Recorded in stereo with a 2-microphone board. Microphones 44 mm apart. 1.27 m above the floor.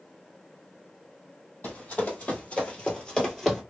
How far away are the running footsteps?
About 1.9 m.